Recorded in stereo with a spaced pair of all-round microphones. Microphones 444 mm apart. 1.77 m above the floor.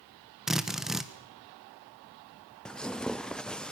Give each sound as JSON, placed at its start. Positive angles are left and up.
{"t": 0.5, "sound": "a drill", "side_deg": 0, "distance_m": 1.5}
{"t": 2.6, "sound": "tearing paper", "side_deg": 0, "distance_m": 0.6}